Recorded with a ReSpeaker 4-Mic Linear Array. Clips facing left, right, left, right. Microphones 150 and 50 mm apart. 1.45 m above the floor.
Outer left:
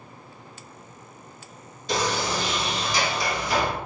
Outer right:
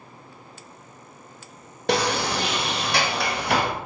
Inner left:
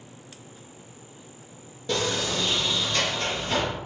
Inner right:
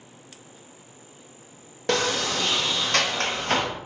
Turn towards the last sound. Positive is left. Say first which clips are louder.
# outer right 3 dB, inner right 3 dB
turn(degrees=-65)  # may be behind; listen again after turning